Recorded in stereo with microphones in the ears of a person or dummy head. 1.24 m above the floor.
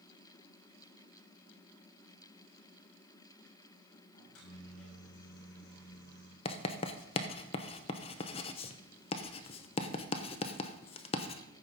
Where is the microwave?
85° left, 5 m.